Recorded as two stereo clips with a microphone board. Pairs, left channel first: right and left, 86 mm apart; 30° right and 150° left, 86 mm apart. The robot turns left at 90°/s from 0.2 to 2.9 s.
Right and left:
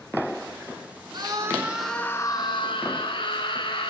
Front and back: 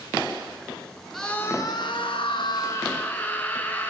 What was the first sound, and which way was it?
A scream, 60° left.